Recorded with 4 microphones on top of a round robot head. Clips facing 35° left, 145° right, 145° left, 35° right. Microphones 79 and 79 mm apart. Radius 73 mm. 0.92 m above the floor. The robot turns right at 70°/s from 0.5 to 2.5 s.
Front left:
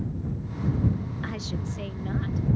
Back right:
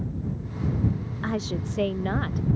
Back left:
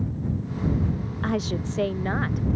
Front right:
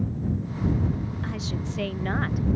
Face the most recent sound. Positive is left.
turn(degrees=-110)